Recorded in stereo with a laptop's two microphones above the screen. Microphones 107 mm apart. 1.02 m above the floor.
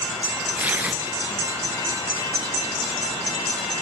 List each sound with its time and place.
0.6 s tearing paper: 15° right (ahead or behind), 3.5 m